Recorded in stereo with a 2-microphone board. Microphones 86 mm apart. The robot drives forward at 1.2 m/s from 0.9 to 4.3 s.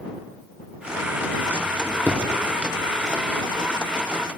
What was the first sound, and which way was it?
A drawer, 25° left (ahead or behind).